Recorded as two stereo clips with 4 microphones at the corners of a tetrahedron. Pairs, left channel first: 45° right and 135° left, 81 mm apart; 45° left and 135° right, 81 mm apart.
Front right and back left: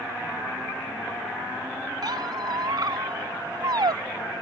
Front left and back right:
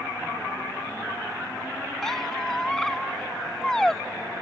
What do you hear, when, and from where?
2.0 s a squeak: 130° left